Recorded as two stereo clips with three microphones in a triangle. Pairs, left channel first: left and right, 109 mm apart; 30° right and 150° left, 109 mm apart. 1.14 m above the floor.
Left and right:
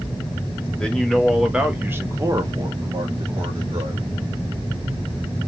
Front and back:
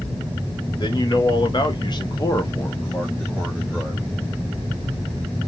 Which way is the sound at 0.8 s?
10° left.